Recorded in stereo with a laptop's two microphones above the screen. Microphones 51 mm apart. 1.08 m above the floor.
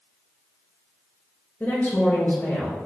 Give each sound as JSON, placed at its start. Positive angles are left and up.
{"t": 1.6, "sound": "a woman speaking", "side_deg": 35, "distance_m": 1.2}